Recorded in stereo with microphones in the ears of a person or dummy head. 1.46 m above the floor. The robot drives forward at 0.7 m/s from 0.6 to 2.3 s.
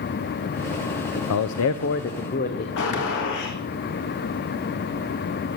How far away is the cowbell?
No cowbell in this recording.